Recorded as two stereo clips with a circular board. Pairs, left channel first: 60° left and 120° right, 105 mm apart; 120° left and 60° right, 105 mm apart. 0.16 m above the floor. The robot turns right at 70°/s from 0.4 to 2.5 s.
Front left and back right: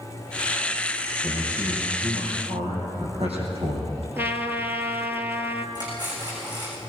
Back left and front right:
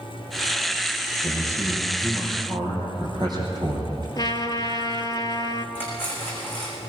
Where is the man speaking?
165° left, 5.5 m; by 4.1 s 110° right, 5.5 m.